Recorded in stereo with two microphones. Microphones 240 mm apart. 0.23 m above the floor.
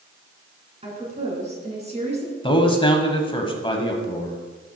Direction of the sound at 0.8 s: 25° right (ahead or behind).